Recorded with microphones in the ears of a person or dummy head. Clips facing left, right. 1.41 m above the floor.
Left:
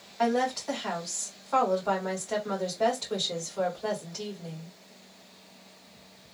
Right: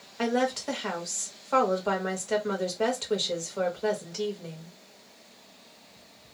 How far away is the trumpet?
No trumpet in this recording.